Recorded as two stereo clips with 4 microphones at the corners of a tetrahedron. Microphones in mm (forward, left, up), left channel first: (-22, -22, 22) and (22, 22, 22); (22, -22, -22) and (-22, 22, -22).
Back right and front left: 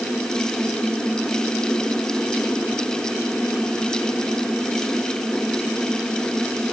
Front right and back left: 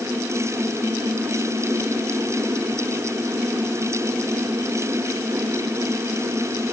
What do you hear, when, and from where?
Only background noise.